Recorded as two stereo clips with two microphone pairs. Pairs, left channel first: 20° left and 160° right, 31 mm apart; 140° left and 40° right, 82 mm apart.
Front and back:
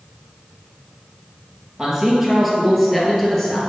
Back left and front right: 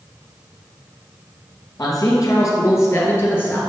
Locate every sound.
1.8 s a man speaking: 125° left, 1.8 m; by 3.6 s 85° left, 1.5 m